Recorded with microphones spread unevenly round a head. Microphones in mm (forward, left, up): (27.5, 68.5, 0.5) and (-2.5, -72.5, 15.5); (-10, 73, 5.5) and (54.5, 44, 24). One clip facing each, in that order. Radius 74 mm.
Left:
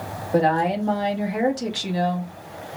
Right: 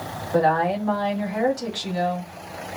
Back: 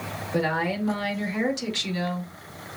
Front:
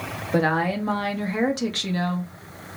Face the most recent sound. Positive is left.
turn(degrees=20)